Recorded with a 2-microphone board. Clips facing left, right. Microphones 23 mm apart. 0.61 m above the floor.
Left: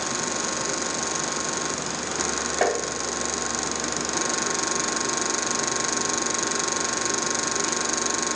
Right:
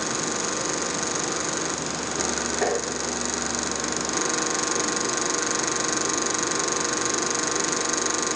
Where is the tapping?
70° left (ahead or behind), 2.5 m.